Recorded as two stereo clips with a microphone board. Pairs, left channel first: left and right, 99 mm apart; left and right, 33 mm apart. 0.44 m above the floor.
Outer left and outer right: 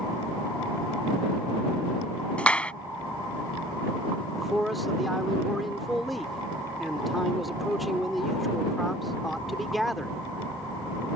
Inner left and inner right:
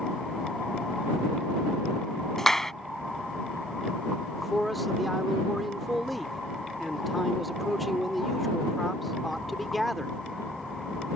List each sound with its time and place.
2.4 s a clap: 10° left (ahead or behind)
4.4 s a man speaking: centre (ahead or behind)